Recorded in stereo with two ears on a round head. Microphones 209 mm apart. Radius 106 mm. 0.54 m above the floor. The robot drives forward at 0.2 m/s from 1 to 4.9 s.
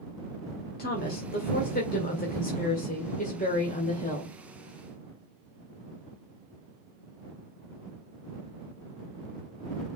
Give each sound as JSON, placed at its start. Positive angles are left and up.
{"t": 0.8, "sound": "a woman speaking", "side_deg": 40, "distance_m": 2.0}